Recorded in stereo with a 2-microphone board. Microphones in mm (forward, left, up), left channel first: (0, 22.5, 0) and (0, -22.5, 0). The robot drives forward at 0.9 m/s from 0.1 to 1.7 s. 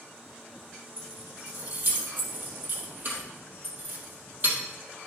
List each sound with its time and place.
1.0 s keys jangling: 60° right (ahead or behind), 2.5 m; by 4.6 s 50° right (ahead or behind), 3 m